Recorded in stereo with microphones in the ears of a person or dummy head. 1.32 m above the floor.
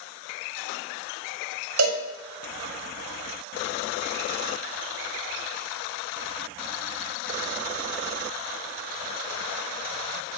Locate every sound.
1.8 s a cowbell: 90° right, 6.5 m